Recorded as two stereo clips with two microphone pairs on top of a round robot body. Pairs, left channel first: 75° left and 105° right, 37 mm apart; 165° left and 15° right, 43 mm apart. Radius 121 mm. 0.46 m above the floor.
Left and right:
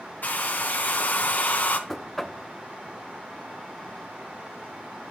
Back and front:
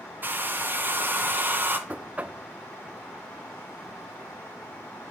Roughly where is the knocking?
Ahead.